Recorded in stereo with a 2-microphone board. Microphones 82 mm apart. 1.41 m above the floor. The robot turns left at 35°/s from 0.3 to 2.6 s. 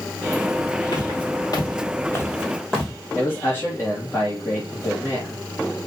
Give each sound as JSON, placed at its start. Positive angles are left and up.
{"t": 0.9, "sound": "footsteps", "side_deg": 55, "distance_m": 2.5}
{"t": 3.1, "sound": "a man speaking", "side_deg": 30, "distance_m": 2.5}